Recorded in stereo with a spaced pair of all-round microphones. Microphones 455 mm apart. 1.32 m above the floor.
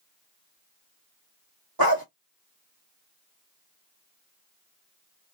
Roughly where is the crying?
No crying in this recording.